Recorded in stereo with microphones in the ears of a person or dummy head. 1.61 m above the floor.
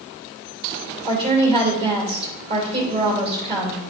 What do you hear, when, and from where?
1.0 s a woman speaking: 35° right (ahead or behind), 2.5 m